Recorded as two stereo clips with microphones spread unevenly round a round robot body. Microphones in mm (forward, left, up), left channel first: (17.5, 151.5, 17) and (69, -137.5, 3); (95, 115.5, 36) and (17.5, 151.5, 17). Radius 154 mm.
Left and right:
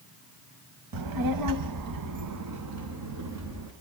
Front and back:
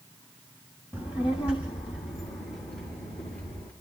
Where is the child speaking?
90° right, 1.1 m; by 3.7 s 45° right, 3 m.